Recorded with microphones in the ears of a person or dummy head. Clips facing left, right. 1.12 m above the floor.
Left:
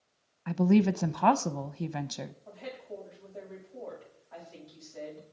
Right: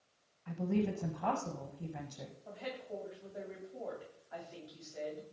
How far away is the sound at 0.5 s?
About 0.7 m.